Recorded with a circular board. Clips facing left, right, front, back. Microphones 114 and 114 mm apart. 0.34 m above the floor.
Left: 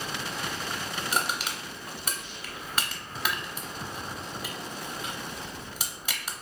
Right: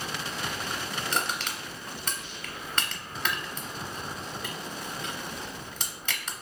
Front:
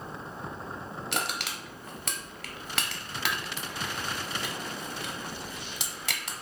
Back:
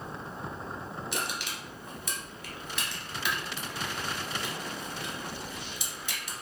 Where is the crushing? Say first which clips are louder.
Left 2 dB, front 4 dB; 10° left, 0.8 m.